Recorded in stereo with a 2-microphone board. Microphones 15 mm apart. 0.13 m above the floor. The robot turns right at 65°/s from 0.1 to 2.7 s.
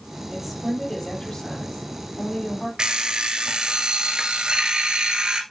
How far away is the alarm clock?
About 1.2 m.